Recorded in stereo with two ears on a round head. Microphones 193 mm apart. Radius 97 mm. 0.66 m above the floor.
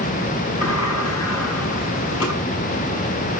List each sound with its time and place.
0.6 s a sliding door: 80° left, 6 m